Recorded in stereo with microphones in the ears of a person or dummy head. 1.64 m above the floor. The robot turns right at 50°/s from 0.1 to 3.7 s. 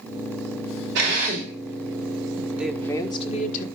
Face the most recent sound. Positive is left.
turn(degrees=50)